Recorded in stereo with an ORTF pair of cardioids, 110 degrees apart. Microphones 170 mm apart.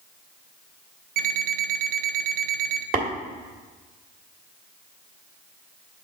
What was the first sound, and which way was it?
An alarm clock, 50° right.